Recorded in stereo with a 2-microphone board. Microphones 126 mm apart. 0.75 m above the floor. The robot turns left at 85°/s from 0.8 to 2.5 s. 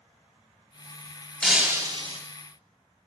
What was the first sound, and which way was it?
Breaking glass, 5° left.